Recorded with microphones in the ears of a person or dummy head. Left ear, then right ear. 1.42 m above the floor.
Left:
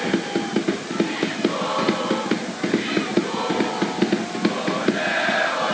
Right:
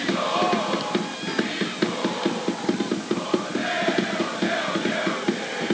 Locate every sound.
Only background noise.